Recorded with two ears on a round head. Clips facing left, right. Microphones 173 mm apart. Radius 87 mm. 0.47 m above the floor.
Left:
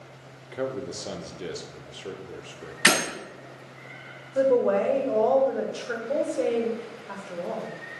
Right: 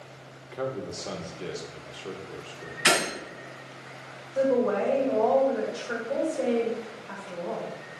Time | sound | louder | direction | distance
0.5 | a man speaking | left 2 dB | 15° left (ahead or behind) | 0.8 m
2.9 | breaking glass | left 1 dB | 70° left (ahead or behind) | 4.5 m
4.3 | a woman speaking | left 3 dB | 35° left (ahead or behind) | 2 m